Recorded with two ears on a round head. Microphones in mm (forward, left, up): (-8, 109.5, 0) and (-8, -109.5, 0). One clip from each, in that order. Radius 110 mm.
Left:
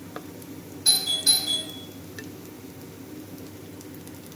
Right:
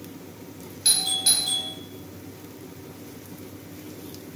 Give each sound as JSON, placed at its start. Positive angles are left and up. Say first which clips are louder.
{"t": 0.8, "sound": "a doorbell", "louder": "left 1 dB", "side_deg": -55, "distance_m": 1.4}